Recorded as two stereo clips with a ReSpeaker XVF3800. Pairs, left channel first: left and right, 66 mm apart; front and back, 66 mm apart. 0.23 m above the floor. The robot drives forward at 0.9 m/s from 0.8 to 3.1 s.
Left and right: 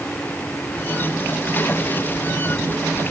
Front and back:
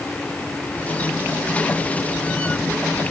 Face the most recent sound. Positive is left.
No sound to turn to.